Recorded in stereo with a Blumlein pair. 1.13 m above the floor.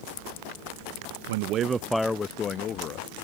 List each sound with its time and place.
1.3 s a man speaking: 60° right; by 3.1 s 35° left